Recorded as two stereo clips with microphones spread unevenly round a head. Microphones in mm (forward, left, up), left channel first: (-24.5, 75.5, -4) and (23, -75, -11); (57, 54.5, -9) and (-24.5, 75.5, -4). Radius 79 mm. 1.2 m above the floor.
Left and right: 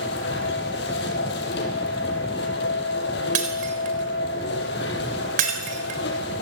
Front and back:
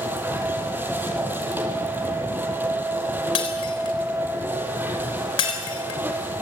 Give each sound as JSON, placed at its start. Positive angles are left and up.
{"t": 0.0, "sound": "a machine running", "azimuth_deg": 100, "distance_m": 5.0}
{"t": 3.4, "sound": "breaking glass", "azimuth_deg": -35, "distance_m": 3.5}